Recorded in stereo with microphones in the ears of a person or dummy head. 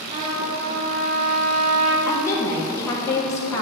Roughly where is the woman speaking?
Centre.